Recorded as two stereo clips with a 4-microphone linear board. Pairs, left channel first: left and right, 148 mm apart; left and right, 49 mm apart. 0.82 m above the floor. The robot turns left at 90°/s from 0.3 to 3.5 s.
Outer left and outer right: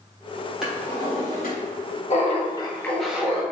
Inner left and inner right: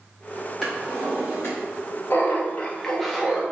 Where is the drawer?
175° right, 2.0 m; by 1.6 s 100° left, 2.0 m.